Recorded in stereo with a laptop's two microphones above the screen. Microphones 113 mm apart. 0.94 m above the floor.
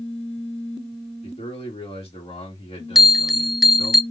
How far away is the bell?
About 0.5 m.